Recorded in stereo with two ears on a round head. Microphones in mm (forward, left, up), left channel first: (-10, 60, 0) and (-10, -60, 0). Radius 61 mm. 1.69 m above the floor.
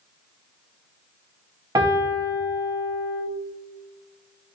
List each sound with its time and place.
1.8 s a piano: 25° right (ahead or behind), 0.8 m